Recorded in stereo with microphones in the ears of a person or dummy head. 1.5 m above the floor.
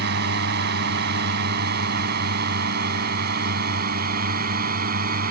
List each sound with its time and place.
0.0 s a drone: 65° right (ahead or behind); by 5.3 s 50° right (ahead or behind)